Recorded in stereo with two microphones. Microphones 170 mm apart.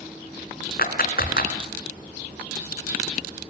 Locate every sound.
0.8 s a clap: 60° left (ahead or behind), 2.5 m